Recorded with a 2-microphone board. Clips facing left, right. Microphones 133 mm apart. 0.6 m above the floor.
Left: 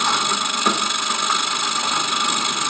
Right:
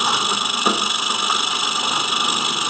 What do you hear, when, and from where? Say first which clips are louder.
0.0 s an engine running: even; 10° right (ahead or behind), 1.5 m